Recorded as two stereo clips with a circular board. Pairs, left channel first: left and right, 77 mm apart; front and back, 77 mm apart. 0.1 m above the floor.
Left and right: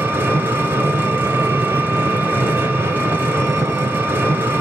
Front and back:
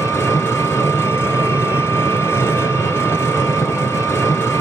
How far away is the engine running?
About 1.2 m.